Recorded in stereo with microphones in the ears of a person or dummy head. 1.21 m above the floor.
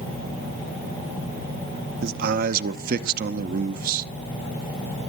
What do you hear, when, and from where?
2.0 s a man speaking: 55° right (ahead or behind), 0.8 m